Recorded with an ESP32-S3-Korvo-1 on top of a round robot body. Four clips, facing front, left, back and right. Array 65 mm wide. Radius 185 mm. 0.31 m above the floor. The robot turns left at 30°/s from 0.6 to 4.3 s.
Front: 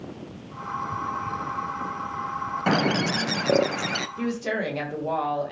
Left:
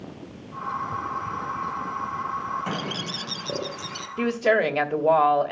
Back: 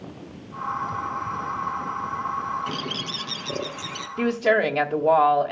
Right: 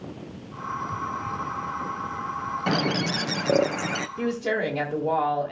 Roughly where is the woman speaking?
Behind left.